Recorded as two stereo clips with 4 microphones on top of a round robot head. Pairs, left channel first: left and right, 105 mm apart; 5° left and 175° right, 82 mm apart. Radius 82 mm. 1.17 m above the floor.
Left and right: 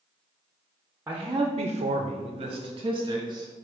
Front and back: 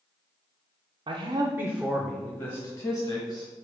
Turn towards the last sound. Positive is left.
turn(degrees=-40)